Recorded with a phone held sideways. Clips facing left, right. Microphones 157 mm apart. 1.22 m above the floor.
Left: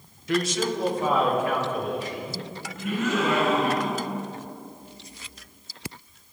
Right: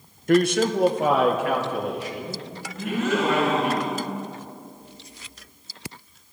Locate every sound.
0.3 s a man speaking: 50° right (ahead or behind), 0.7 m; by 3.8 s 75° right (ahead or behind), 5 m
2.8 s a gasp: 75° right (ahead or behind), 5 m